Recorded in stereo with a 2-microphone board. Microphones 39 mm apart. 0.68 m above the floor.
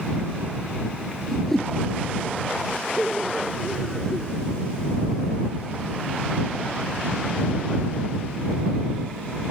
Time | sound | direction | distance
1.3 | a whoosh | 10° left (ahead or behind) | ?
3.0 | laughter | 5° left (ahead or behind) | ?